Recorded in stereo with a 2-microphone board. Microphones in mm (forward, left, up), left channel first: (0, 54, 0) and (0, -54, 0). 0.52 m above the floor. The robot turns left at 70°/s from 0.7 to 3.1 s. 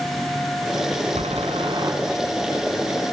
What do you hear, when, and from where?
1.1 s a door slam: 90° right, 4 m; by 1.9 s 145° right, 4 m